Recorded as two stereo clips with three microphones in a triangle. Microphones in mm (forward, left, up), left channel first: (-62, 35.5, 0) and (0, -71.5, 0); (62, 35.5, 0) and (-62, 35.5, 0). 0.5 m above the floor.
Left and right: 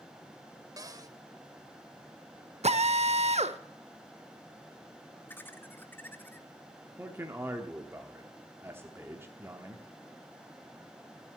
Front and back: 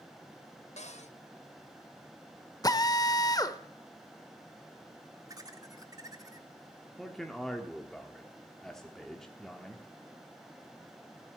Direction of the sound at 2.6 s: 55° right.